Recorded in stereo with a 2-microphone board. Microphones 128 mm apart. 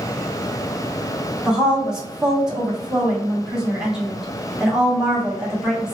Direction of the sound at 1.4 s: 5° right (ahead or behind).